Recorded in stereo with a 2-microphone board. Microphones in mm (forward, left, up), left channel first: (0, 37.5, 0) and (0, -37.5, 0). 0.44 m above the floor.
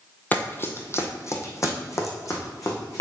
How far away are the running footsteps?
About 0.8 m.